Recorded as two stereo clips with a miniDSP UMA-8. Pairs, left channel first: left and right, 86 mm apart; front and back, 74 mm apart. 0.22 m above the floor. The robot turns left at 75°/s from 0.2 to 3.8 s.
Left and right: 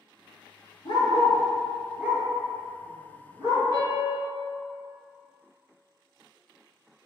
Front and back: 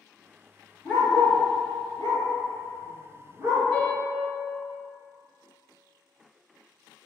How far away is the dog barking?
About 1.3 m.